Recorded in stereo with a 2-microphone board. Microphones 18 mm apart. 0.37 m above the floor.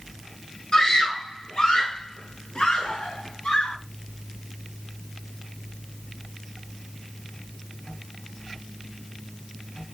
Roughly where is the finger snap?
I don't hear a finger snap.